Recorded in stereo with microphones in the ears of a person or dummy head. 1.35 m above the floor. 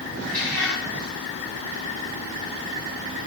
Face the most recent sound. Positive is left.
turn(degrees=15)  # may be behind; listen again after turning